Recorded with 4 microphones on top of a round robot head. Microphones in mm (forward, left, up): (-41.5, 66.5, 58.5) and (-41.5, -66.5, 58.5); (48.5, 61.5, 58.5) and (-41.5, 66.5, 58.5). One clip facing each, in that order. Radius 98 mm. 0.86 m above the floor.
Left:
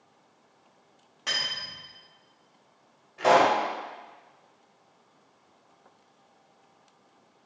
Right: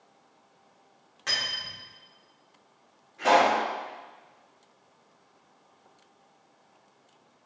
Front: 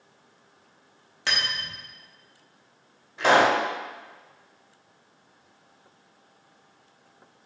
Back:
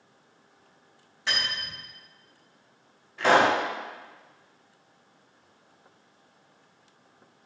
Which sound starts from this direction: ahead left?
A pop, at 3.2 s.